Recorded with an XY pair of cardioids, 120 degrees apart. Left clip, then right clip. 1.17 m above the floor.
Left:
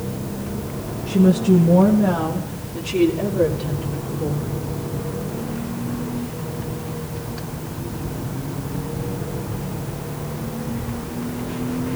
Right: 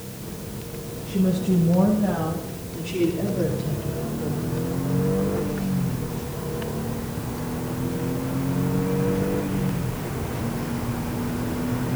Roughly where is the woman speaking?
Ahead left.